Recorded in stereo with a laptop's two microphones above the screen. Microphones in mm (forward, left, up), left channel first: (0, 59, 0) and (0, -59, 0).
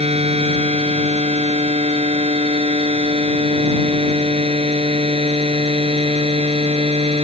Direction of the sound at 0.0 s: 60° right (ahead or behind).